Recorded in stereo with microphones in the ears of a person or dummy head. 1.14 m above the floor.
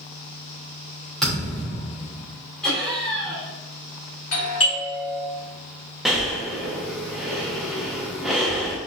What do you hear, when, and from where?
1.2 s a thud: centre (ahead or behind), 1.4 m
2.6 s laughter: 5° left (ahead or behind), 1.5 m
4.3 s a doorbell: 65° left (ahead or behind), 1.8 m
6.0 s breathing: centre (ahead or behind), 0.6 m